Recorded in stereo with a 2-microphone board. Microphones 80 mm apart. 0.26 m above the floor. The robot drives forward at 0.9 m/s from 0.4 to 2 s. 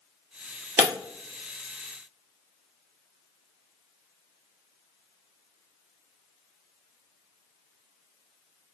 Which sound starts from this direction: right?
Breaking glass, at 0.8 s.